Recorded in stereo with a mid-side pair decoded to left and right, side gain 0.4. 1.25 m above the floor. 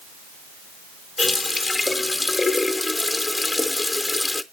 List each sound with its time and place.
1.2 s a running tap: 25° left, 0.6 m